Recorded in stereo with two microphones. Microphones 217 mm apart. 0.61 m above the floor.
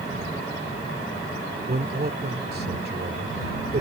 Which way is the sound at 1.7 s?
45° right (ahead or behind).